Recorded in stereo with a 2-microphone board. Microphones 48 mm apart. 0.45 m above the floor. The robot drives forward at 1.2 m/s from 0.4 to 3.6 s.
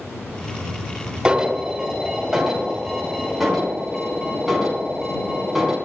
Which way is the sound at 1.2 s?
20° right (ahead or behind).